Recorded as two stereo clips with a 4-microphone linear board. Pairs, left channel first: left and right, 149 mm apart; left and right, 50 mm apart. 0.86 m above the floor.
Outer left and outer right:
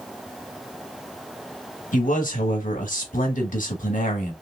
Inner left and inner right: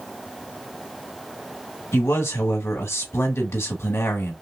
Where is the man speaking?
65° left (ahead or behind), 1.2 m.